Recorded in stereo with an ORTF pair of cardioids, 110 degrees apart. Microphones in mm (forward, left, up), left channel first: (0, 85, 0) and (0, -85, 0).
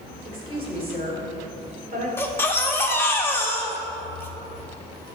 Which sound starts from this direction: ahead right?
A woman speaking, at 0.2 s.